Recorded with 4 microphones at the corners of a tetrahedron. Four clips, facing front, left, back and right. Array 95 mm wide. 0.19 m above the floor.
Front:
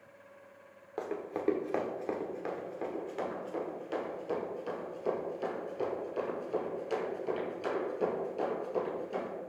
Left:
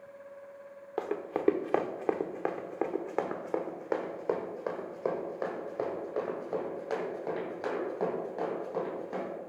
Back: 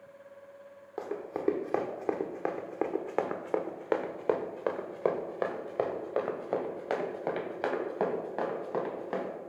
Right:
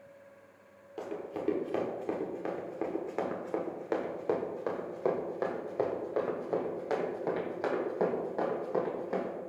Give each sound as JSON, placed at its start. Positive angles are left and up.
{"t": 1.0, "sound": "running footsteps", "azimuth_deg": 95, "distance_m": 1.2}